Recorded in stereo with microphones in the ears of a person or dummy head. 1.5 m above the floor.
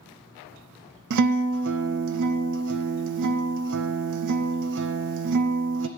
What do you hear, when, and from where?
1.1 s a guitar: 60° right (ahead or behind), 0.6 m